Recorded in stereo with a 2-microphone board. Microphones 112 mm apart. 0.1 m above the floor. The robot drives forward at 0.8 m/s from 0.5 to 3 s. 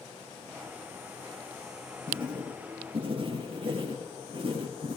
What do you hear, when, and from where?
2.1 s writing: 45° right (ahead or behind), 6 m; by 5.0 s 50° right (ahead or behind), 5.5 m